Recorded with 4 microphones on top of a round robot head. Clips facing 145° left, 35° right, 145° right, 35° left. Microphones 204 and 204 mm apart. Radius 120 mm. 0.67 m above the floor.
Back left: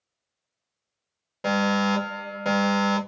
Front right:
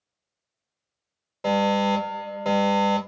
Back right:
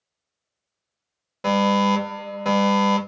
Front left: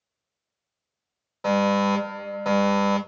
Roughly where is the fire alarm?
Behind right.